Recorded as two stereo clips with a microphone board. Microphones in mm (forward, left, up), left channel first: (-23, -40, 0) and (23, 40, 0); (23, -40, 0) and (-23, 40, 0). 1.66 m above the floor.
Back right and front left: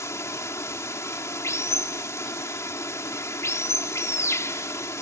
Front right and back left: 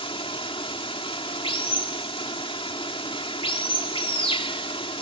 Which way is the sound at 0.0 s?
60° right.